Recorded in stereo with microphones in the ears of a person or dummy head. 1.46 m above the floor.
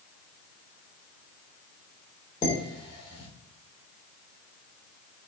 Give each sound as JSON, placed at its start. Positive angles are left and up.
{"t": 2.4, "sound": "dishes clattering", "side_deg": 25, "distance_m": 3.0}